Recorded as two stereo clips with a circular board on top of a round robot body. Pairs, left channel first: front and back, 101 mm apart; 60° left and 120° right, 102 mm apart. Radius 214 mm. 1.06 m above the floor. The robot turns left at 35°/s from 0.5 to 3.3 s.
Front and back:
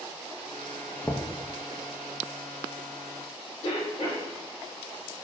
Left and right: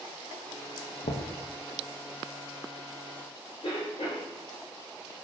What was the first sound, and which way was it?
Knocking, 70° left.